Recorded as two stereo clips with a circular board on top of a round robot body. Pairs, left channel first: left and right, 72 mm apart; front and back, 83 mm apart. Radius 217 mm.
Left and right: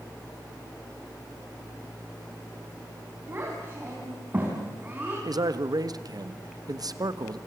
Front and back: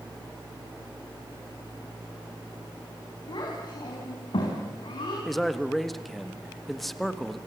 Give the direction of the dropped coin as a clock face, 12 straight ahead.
I don't hear a dropped coin.